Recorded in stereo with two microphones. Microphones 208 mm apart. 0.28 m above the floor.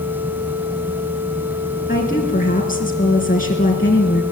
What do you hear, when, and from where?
1.9 s a woman speaking: 45° left (ahead or behind), 3 m